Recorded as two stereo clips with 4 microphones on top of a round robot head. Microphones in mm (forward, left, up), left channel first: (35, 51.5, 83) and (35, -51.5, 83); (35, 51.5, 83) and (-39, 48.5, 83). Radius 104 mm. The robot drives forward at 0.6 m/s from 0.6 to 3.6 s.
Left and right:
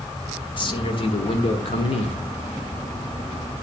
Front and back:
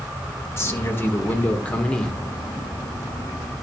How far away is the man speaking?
About 2 m.